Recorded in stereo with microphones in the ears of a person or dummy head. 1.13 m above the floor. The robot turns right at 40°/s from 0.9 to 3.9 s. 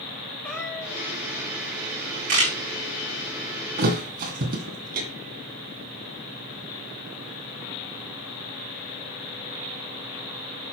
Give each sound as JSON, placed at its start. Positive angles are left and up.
{"t": 0.4, "sound": "a cat meowing", "side_deg": 5, "distance_m": 1.8}
{"t": 2.3, "sound": "a camera shutter", "side_deg": -50, "distance_m": 3.5}
{"t": 3.8, "sound": "a thud", "side_deg": -50, "distance_m": 2.0}